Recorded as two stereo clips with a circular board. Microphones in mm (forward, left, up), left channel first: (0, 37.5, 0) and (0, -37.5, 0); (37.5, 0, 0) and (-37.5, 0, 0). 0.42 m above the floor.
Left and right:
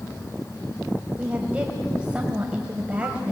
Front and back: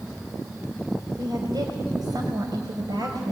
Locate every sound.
1.2 s a woman speaking: 165° right, 2.5 m